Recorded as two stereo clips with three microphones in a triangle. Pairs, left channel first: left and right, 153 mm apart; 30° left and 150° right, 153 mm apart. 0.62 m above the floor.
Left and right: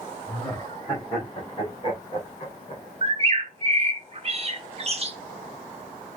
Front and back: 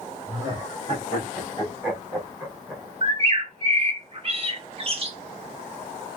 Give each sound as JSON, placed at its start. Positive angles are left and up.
{"t": 0.3, "sound": "laughter", "azimuth_deg": 160, "distance_m": 3.0}
{"t": 3.0, "sound": "a bird", "azimuth_deg": -120, "distance_m": 0.6}